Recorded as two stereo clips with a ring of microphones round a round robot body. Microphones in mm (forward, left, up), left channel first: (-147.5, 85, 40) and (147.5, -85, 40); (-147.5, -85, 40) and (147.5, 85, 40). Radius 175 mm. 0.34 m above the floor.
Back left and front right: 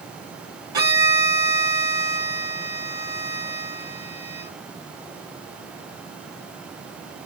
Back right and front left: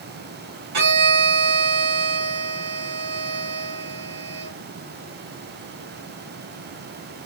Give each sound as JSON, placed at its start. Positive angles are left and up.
{"t": 0.7, "sound": "a violin", "azimuth_deg": 50, "distance_m": 4.0}